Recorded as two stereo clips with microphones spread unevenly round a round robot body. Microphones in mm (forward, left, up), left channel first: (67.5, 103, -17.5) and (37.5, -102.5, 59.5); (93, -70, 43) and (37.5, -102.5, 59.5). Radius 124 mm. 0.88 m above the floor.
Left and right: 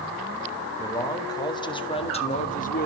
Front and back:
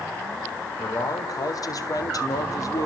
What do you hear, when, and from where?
0.8 s a man speaking: 10° left, 3.5 m; by 2.9 s 50° left, 1.7 m